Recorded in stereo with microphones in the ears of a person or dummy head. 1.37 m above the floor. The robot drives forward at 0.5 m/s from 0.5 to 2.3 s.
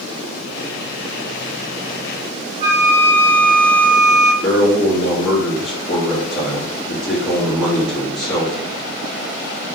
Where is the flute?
65° right (ahead or behind), 2.5 m.